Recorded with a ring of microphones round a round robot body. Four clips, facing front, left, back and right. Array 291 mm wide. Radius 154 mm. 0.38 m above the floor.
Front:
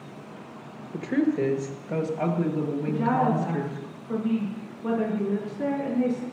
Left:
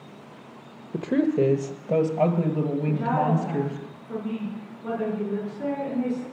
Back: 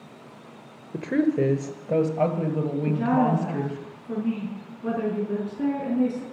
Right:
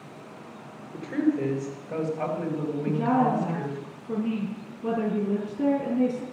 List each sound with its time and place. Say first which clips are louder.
0.9 s a woman speaking: left 3 dB, back 2 dB; 115° left, 1.3 m; by 3.9 s 140° left, 3 m
2.9 s a woman speaking: right 4 dB, back 2 dB; 125° right, 4.5 m